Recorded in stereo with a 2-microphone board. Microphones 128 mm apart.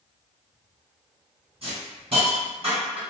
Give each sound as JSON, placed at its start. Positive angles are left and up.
{"t": 1.6, "sound": "a hiss", "side_deg": -50, "distance_m": 1.9}